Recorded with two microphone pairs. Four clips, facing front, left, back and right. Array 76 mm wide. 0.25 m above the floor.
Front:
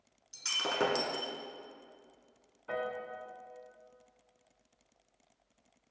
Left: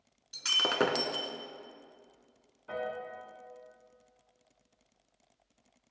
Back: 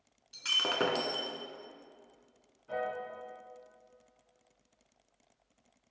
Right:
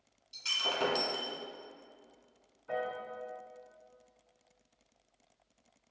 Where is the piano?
20° left, 1.7 m.